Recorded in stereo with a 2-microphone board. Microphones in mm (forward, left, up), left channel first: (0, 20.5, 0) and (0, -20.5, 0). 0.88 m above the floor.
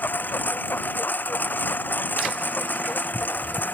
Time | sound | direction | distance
0.0 | a lawn mower | 50° left (ahead or behind) | ?